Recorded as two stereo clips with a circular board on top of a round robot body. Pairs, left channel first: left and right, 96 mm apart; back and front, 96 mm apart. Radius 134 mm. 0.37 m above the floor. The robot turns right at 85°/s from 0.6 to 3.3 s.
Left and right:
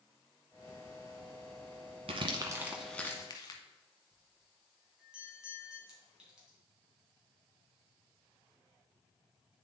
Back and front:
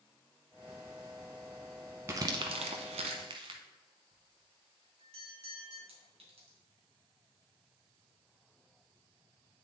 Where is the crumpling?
65° right, 0.6 m; by 3.6 s 40° left, 0.6 m.